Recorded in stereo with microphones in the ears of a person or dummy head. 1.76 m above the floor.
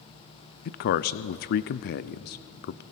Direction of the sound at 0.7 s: 50° left (ahead or behind).